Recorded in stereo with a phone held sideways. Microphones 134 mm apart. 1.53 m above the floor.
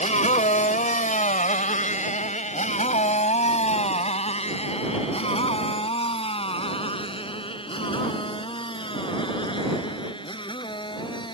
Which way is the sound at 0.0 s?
65° left (ahead or behind).